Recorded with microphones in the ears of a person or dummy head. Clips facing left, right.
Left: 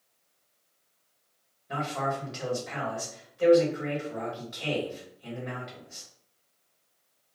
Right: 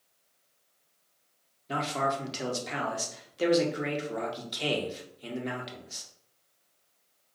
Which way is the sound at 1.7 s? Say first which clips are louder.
Right 1 dB; 50° right (ahead or behind).